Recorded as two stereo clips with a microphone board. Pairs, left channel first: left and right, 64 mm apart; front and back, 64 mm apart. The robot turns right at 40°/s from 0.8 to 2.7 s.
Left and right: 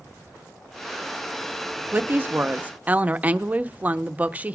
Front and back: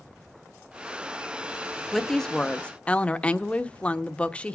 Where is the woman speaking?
85° right, 0.8 m; by 4.5 s 50° right, 0.8 m.